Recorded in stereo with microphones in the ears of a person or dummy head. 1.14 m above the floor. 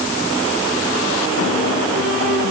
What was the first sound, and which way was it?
Only background noise.